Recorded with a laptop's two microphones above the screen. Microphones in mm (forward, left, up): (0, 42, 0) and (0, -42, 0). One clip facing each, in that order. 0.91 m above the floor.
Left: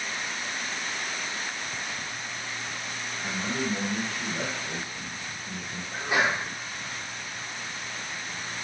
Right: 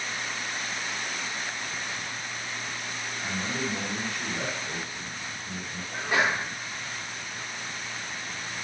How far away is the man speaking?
About 1.5 m.